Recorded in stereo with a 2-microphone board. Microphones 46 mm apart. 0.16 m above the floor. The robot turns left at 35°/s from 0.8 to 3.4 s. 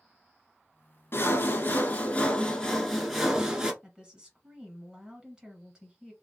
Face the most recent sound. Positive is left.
turn(degrees=-20)  # may be behind; listen again after turning